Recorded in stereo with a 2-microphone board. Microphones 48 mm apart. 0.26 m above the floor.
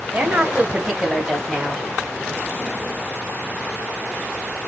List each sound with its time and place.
0.1 s a woman speaking: 30° right (ahead or behind), 1.1 m; by 1.9 s 15° left (ahead or behind), 1.5 m